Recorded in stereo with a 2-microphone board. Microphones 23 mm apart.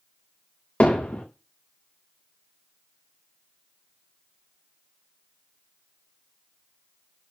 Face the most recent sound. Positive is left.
turn(degrees=85)